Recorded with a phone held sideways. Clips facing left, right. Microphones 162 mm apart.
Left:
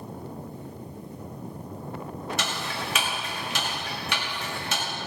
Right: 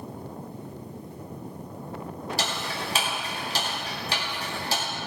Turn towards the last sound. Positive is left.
turn(degrees=-35)  # may be behind; listen again after turning